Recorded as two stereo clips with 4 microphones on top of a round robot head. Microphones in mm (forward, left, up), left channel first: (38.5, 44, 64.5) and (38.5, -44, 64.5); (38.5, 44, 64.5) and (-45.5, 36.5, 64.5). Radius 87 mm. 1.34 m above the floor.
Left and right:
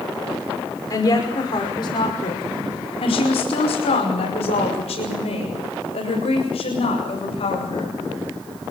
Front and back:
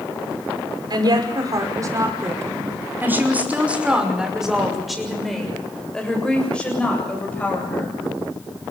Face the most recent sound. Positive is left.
turn(degrees=75)